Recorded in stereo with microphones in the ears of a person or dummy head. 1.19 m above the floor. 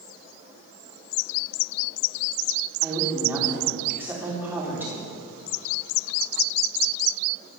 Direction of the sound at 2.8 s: 10° right (ahead or behind).